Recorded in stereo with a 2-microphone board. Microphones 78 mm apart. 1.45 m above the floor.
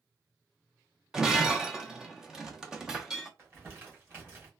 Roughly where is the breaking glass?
Centre.